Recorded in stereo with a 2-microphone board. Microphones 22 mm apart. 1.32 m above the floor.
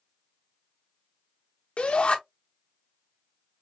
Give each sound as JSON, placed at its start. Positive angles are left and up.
{"t": 1.8, "sound": "a shout", "side_deg": 75, "distance_m": 1.0}